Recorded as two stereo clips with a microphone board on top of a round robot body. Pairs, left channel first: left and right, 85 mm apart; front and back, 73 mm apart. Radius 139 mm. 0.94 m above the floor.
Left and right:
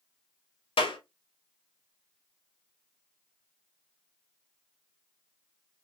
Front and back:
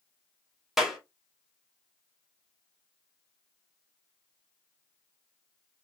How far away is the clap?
About 1.8 m.